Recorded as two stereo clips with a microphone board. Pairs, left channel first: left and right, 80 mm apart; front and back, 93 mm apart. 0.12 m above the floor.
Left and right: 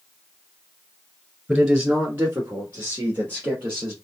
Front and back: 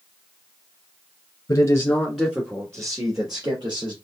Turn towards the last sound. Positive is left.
turn(degrees=-150)